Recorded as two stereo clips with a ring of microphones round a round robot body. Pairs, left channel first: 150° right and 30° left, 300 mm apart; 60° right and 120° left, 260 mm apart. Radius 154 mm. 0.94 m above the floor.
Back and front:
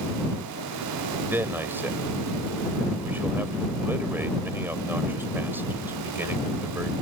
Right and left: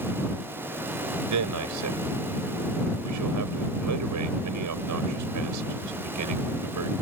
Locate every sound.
1.3 s a man speaking: 115° left